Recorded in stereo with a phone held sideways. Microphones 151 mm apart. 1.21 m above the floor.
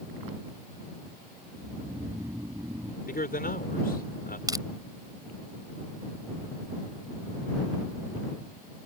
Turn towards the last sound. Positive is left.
turn(degrees=-25)  # may be behind; listen again after turning